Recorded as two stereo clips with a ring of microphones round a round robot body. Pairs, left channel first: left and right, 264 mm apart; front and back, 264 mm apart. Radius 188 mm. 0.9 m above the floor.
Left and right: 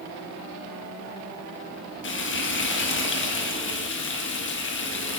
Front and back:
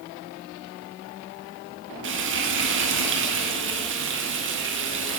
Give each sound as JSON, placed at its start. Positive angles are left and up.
{"t": 2.0, "sound": "frying", "azimuth_deg": 135, "distance_m": 1.5}